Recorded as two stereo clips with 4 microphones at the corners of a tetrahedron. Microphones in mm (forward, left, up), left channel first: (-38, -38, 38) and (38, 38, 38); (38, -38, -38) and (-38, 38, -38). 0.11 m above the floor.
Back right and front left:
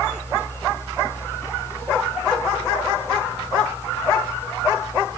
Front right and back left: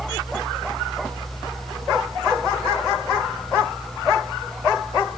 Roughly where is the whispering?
I don't hear whispering.